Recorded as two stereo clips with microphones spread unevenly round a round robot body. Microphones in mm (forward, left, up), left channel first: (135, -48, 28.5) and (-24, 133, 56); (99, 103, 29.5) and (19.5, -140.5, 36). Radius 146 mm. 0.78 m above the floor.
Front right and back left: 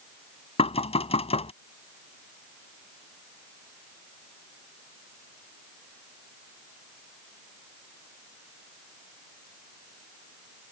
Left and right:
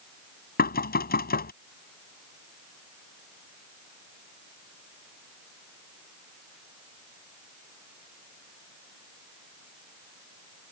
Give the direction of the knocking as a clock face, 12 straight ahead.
11 o'clock.